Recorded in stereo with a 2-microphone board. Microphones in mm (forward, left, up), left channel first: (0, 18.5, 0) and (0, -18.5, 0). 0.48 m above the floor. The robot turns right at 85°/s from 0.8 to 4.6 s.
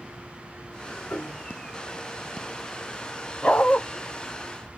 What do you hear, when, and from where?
1.1 s a piano: 125° left, 1.7 m; by 1.5 s 160° left, 1.7 m
3.4 s a dog barking: 35° left, 1.0 m; by 3.8 s 65° left, 1.0 m